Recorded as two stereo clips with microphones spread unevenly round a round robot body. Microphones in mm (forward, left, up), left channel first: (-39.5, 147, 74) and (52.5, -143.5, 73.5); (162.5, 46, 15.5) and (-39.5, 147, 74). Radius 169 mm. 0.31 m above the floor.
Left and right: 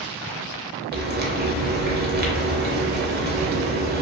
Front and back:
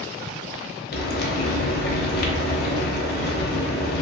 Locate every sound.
0.9 s frying: 20° right, 0.7 m